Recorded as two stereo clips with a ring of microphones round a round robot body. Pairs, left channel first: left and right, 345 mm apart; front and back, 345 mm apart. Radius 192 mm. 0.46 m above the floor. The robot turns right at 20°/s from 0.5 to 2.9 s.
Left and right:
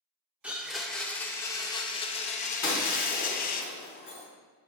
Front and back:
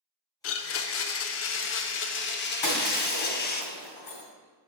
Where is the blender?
5° right, 0.5 m; by 3.6 s 45° left, 0.5 m.